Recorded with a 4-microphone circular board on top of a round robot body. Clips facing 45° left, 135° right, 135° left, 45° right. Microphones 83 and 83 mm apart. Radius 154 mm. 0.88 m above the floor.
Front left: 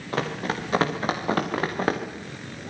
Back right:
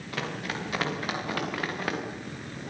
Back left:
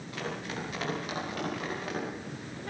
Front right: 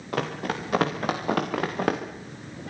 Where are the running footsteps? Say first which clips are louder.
Front left 6 dB, front right 8 dB; 10° right, 6.5 m; by 2.0 s 15° right, 5 m.